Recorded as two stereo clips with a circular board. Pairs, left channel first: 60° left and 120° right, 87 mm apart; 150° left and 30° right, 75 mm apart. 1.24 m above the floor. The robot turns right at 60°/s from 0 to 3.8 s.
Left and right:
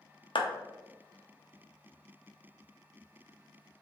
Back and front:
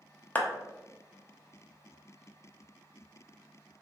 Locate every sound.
0.3 s a clap: 85° left, 0.5 m; by 0.5 s 90° left, 0.5 m